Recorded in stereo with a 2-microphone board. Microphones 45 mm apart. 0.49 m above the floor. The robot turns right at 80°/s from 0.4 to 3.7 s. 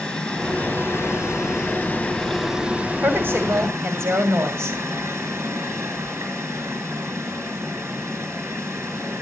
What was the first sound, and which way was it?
Running water, 20° left.